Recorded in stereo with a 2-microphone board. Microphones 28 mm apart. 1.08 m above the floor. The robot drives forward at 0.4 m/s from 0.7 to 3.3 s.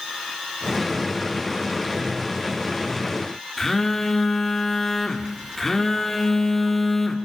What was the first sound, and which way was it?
A phone buzzing, 10° left (ahead or behind).